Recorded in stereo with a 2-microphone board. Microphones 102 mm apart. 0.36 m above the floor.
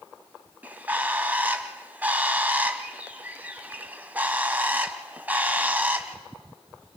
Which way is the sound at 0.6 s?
15° right (ahead or behind).